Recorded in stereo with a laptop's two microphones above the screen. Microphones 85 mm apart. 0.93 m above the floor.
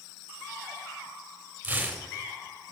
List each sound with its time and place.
1.6 s tearing paper: 15° right (ahead or behind), 3 m